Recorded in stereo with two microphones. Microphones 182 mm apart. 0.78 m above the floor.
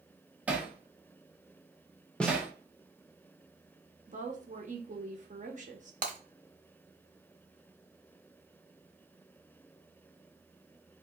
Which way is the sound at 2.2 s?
5° left (ahead or behind).